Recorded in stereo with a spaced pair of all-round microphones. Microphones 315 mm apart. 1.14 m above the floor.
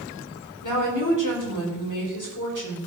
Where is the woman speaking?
70° left (ahead or behind), 4 m.